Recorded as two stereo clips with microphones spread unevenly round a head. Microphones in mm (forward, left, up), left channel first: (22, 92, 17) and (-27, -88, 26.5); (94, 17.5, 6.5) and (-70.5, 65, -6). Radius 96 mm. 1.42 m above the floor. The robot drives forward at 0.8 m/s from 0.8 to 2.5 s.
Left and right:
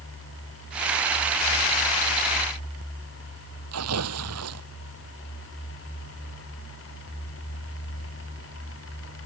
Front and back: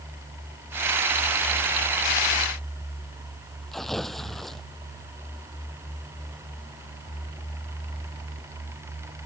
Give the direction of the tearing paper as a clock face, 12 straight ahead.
3 o'clock.